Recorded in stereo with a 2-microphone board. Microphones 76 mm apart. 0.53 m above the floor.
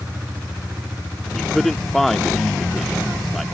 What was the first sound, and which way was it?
A man speaking, centre (ahead or behind).